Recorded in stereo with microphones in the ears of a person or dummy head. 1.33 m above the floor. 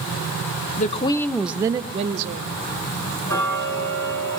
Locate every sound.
0.8 s a woman speaking: 40° left (ahead or behind), 0.8 m; by 2.5 s 45° right (ahead or behind), 1.3 m
3.3 s ticking: 20° left (ahead or behind), 4.5 m